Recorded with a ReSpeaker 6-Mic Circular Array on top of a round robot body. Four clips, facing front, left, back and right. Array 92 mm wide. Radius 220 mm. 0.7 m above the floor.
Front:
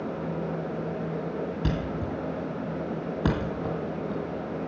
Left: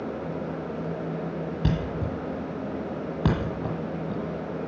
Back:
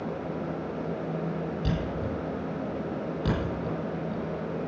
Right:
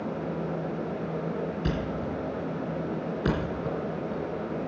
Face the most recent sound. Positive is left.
turn(degrees=60)